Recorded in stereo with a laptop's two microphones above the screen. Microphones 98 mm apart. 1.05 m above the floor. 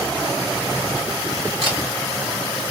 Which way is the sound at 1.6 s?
60° right (ahead or behind).